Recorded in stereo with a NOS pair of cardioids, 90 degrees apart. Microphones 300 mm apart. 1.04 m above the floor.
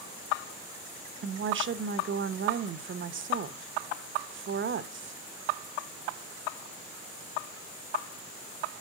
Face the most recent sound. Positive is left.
turn(degrees=-40)